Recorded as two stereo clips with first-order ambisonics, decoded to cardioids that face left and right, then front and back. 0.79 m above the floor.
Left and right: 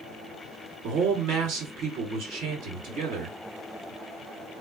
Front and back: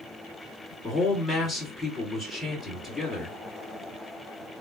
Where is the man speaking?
85° right, 1.5 m.